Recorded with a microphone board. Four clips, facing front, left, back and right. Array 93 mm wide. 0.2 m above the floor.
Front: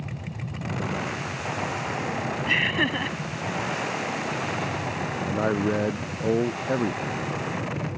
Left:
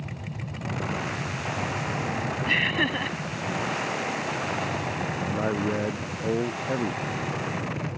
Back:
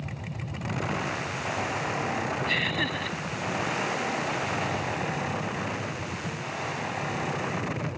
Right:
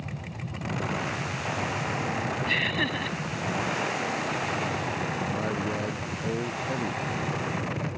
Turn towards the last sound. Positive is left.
turn(degrees=20)